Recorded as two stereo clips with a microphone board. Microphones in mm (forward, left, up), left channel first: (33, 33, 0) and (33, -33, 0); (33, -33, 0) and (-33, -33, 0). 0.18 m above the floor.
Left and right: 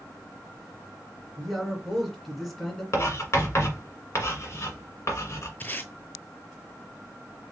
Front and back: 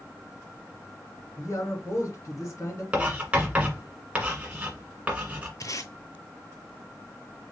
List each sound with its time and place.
1.4 s a man speaking: 5° left, 2.5 m
2.9 s writing: 115° left, 1.7 m
5.6 s tape being pulled: 25° left, 0.8 m